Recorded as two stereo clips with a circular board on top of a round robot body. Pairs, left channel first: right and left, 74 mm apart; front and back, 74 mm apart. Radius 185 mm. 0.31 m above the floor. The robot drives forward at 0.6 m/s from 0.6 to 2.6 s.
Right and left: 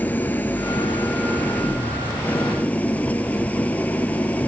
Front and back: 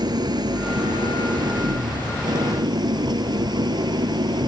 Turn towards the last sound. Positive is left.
turn(degrees=-160)